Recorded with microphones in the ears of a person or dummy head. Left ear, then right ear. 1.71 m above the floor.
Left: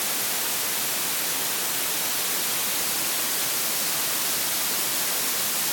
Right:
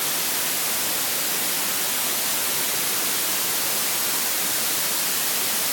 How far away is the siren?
No siren in this recording.